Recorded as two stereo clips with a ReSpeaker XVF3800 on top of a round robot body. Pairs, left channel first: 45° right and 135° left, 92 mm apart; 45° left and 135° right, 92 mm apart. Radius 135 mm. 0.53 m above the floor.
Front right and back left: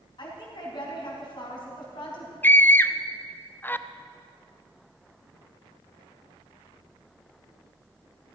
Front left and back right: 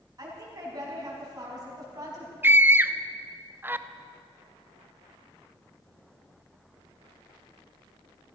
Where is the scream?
90° right, 0.8 m.